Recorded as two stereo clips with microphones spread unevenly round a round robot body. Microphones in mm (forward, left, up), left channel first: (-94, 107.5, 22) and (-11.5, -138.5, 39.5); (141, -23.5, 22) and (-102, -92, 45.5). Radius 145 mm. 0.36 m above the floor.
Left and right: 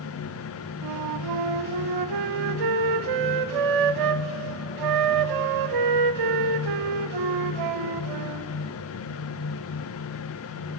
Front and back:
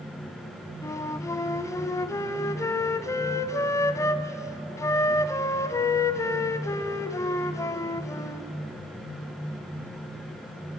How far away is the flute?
About 0.5 m.